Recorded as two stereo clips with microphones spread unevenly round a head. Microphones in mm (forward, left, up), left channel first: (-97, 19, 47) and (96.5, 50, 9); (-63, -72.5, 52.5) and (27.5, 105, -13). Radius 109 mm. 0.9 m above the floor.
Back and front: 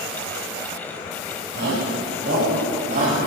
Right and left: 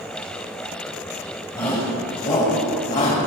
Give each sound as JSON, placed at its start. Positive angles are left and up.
{"t": 1.6, "sound": "a shout", "azimuth_deg": -40, "distance_m": 5.5}